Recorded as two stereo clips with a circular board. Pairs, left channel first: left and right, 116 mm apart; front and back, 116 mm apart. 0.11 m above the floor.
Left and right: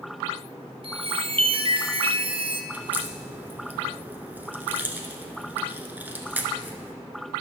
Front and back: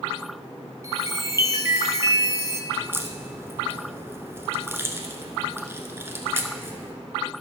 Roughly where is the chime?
Behind right.